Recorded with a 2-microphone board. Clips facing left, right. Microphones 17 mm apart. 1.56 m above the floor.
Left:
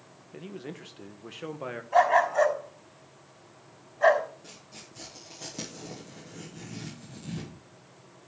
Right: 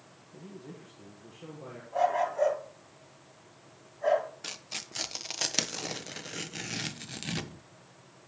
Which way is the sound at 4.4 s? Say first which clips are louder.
Right 8 dB; 75° right (ahead or behind).